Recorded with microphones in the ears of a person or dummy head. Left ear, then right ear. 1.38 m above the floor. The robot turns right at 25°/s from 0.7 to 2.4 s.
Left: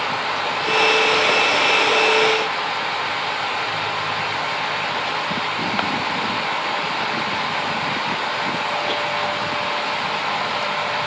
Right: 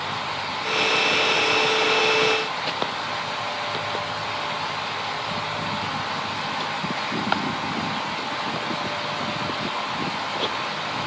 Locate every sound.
Only background noise.